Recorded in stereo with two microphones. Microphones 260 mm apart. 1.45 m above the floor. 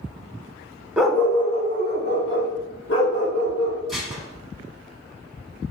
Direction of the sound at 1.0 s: 5° right (ahead or behind).